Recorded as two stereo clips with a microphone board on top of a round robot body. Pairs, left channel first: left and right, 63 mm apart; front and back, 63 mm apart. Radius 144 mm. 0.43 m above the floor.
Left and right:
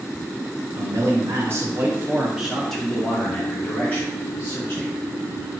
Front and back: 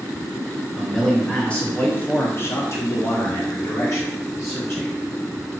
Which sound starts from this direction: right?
A man speaking, at 0.8 s.